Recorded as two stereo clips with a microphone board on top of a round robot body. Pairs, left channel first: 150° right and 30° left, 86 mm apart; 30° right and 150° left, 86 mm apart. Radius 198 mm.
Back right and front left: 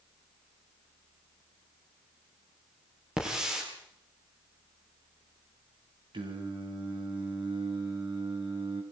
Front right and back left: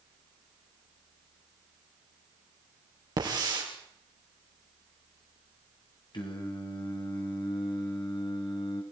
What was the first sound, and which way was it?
A hiss, 110° left.